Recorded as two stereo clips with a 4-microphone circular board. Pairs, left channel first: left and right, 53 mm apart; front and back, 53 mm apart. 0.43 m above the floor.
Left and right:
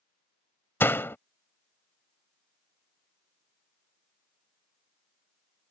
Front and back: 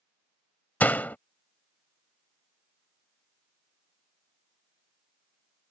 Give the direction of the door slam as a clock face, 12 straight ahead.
10 o'clock.